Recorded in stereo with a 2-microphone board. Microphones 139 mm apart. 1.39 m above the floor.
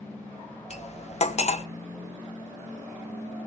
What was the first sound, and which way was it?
Cutlery clinking, 50° left (ahead or behind).